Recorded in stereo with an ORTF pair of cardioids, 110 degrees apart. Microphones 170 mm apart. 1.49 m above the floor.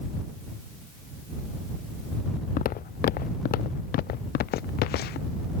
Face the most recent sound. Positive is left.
turn(degrees=70)